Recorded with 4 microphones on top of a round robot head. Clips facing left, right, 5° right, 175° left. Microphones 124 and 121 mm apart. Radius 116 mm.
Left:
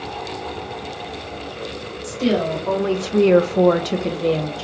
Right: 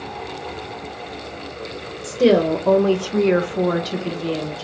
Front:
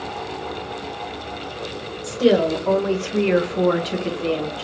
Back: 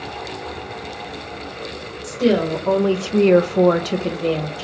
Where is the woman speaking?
85° right, 0.9 m; by 4.6 s 115° left, 1.2 m.